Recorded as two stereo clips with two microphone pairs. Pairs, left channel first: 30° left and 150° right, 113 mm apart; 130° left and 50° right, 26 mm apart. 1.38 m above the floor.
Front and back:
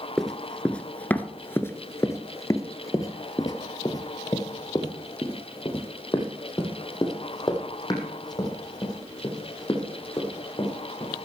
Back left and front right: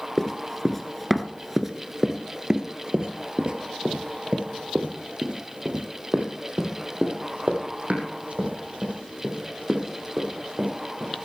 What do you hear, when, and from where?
0.2 s running footsteps: 110° left, 1.4 m; by 11.2 s 25° right, 5.5 m